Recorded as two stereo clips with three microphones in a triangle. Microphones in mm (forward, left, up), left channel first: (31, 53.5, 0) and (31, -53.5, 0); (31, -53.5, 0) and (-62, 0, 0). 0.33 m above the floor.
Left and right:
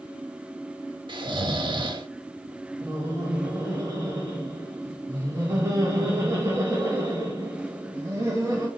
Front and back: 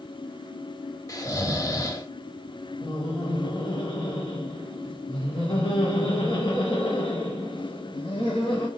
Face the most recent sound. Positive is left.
turn(degrees=-40)